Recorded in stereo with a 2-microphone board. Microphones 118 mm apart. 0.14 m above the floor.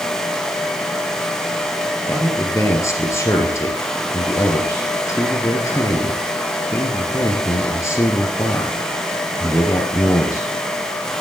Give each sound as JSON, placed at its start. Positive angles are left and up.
{"t": 2.1, "sound": "a man speaking", "side_deg": 25, "distance_m": 3.0}